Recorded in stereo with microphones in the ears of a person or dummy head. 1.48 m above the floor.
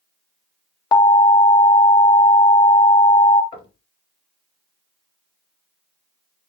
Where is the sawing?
No sawing in this recording.